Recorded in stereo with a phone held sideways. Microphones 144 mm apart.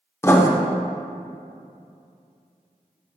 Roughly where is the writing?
Centre.